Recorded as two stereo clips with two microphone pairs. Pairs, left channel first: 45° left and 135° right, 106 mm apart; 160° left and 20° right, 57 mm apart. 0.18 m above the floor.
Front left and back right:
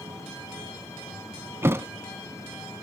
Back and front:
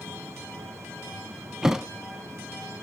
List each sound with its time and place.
1.6 s a thud: 90° right, 0.7 m